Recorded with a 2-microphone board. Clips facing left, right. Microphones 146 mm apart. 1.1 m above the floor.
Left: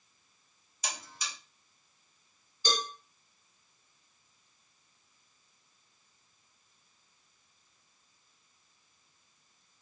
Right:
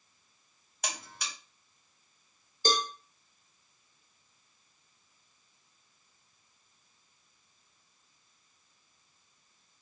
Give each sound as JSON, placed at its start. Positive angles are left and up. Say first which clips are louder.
{"t": 0.8, "sound": "a buzzer", "louder": "right 1 dB", "side_deg": -60, "distance_m": 1.0}
{"t": 2.6, "sound": "a cowbell", "louder": "right 4 dB", "side_deg": -45, "distance_m": 0.7}